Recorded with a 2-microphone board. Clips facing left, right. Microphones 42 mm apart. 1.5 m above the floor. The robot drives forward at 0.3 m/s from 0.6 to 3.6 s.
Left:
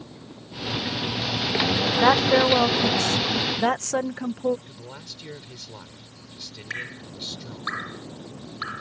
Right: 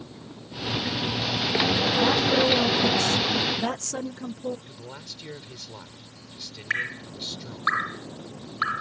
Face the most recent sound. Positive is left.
turn(degrees=-30)  # may be behind; listen again after turning